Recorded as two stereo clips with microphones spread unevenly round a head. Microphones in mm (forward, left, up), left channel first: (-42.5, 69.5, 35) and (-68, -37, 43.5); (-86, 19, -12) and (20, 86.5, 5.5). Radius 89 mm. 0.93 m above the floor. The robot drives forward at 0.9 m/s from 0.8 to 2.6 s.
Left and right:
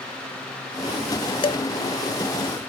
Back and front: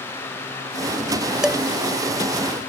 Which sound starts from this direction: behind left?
Dishes clattering, at 1.4 s.